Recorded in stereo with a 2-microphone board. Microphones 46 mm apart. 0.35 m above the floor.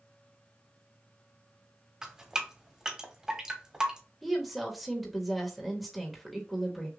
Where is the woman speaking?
Centre (ahead or behind), 1.1 m.